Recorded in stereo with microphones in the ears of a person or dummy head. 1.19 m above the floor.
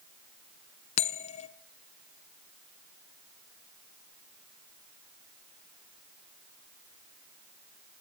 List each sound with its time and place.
1.0 s a bell: 30° left (ahead or behind), 0.6 m